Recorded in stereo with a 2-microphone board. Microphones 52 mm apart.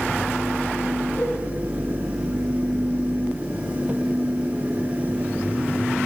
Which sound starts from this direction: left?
A cowbell, at 1.2 s.